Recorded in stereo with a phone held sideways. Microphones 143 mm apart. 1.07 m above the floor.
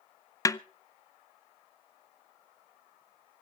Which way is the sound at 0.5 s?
25° left (ahead or behind).